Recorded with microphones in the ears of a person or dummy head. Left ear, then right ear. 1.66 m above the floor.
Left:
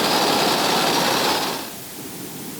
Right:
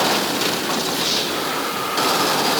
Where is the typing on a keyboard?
I don't hear typing on a keyboard.